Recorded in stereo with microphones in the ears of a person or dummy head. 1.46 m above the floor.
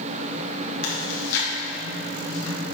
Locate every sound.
0.8 s chewing: 75° left (ahead or behind), 2.0 m